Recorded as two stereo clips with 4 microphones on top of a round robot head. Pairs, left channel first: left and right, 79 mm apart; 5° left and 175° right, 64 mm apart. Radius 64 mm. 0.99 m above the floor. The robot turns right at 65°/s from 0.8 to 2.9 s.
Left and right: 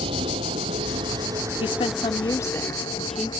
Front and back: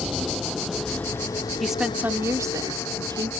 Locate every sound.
0.0 s a vehicle: 85° right; by 3.4 s 60° left
1.6 s a woman speaking: 95° left; by 3.3 s straight behind